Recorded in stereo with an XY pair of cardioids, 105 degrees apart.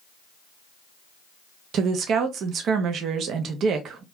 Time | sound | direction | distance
1.7 | a woman speaking | 70° right | 0.6 m